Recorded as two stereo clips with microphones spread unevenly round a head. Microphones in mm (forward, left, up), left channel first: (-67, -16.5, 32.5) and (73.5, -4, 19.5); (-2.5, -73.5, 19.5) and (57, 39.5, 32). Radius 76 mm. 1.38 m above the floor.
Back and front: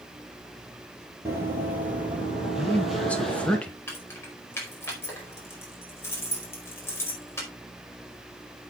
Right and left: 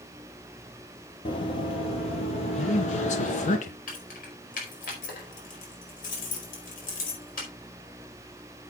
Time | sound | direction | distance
1.2 | running footsteps | 70° right | 2.5 m
2.6 | a man speaking | 90° right | 1.0 m
3.9 | keys jangling | 100° right | 4.5 m